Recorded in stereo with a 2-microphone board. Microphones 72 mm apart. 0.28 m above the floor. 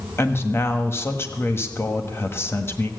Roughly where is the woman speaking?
Left.